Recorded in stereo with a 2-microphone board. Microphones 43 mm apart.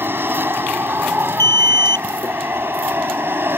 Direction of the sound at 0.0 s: 55° right (ahead or behind).